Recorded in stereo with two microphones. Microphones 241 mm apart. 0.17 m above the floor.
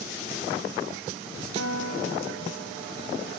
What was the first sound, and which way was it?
A guitar, 85° right.